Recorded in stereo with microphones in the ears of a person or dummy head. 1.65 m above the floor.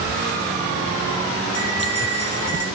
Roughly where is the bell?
Left.